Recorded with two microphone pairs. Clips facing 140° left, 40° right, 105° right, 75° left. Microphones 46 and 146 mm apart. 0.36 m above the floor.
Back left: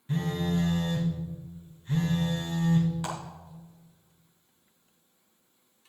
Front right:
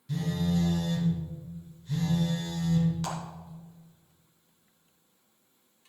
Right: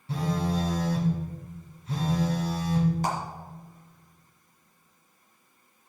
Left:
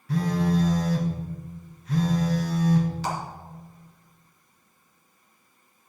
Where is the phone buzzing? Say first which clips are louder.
Even, left 4 dB; 165° right, 2.5 m.